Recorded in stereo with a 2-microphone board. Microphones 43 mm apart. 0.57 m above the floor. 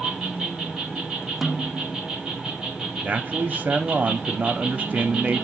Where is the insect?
15° right (ahead or behind), 3 m.